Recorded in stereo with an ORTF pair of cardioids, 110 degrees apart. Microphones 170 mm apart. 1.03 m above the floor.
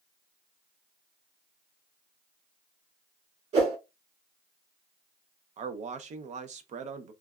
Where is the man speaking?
45° right, 0.6 m.